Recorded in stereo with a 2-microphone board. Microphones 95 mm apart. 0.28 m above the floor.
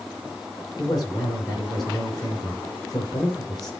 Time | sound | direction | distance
0.8 | a man speaking | 45° left (ahead or behind) | 5 m